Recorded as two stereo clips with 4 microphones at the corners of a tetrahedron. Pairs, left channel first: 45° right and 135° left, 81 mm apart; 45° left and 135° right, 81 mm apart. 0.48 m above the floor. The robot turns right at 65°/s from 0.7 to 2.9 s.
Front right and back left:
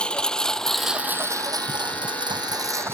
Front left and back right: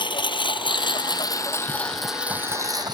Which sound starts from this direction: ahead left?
A lawn mower, at 0.0 s.